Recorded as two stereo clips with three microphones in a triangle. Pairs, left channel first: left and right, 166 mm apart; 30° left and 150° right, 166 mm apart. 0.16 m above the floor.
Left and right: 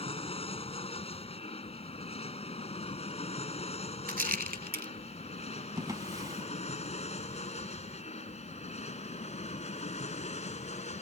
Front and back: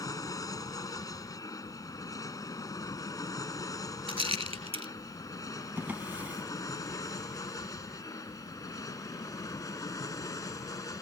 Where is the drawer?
90° right.